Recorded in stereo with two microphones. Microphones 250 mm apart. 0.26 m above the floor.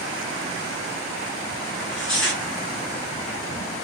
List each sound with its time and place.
1.7 s tearing paper: 45° left (ahead or behind), 2.5 m